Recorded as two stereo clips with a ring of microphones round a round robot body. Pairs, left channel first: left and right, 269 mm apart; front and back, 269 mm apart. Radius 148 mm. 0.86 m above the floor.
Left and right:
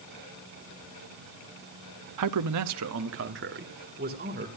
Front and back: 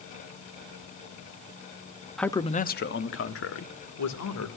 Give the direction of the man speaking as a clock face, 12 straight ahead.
3 o'clock.